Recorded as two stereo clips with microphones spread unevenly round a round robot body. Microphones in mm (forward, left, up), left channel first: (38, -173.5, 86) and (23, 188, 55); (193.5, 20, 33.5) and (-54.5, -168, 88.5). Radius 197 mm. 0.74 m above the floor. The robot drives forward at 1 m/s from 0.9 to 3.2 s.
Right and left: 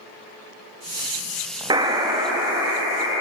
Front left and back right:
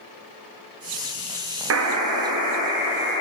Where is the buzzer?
165° left, 0.6 m; by 3.2 s 175° left, 2 m.